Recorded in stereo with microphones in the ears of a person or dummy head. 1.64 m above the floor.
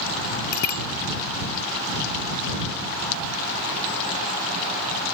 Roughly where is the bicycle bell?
Left.